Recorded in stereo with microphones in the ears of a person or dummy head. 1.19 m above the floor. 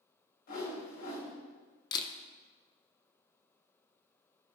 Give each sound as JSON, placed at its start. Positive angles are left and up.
{"t": 0.5, "sound": "a whoosh", "side_deg": 65, "distance_m": 3.5}
{"t": 1.9, "sound": "a camera shutter", "side_deg": 25, "distance_m": 1.0}